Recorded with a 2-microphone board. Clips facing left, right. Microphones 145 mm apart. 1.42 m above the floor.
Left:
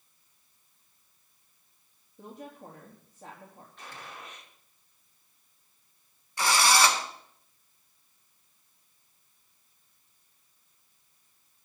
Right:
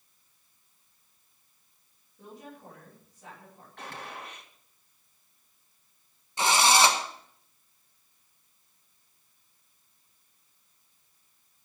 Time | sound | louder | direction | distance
2.2 | a woman speaking | left 2 dB | 45° left (ahead or behind) | 3 m
3.8 | a gunshot | right 5 dB | 65° right (ahead or behind) | 2 m
6.4 | a drill | right 2 dB | 20° right (ahead or behind) | 1.3 m